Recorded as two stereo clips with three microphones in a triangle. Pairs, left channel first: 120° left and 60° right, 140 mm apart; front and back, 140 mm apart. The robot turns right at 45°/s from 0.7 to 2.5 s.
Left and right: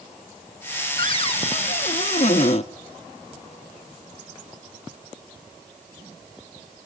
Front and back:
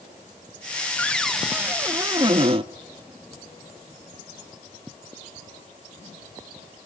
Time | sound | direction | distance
1.0 | a cupboard door | 75° left | 0.6 m